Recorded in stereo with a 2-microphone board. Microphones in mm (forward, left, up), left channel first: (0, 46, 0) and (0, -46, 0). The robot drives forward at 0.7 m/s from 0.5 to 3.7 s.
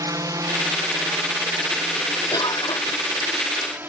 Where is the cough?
45° left (ahead or behind); by 3.1 s 50° left (ahead or behind).